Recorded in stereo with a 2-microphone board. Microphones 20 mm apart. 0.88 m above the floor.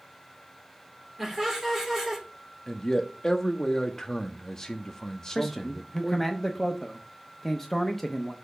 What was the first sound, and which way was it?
Laughter, 10° right (ahead or behind).